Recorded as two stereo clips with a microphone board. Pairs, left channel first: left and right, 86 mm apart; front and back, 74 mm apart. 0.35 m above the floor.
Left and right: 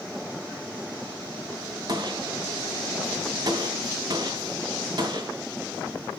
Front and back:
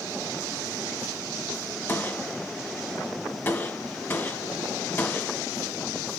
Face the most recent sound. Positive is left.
turn(degrees=-60)